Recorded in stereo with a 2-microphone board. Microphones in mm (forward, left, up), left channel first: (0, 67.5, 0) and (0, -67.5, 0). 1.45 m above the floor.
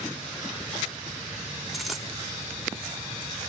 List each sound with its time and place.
1.7 s a dropped coin: centre (ahead or behind), 3 m